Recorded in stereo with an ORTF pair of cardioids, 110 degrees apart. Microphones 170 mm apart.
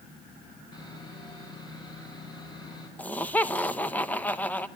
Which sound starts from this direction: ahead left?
Sawing, at 0.7 s.